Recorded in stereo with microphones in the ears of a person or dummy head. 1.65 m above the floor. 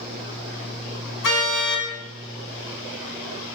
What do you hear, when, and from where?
1.2 s a car horn: 65° left (ahead or behind), 5.5 m